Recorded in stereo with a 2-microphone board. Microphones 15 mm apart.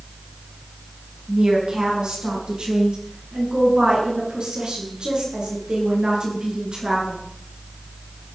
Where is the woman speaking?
85° right, 7.5 m.